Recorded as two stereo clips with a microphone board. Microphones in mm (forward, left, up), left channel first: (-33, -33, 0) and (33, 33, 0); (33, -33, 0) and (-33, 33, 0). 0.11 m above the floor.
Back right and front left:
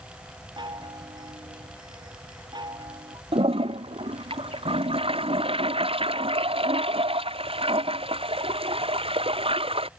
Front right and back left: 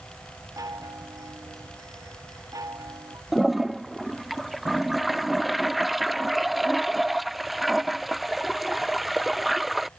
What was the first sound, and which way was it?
A chime, 80° left.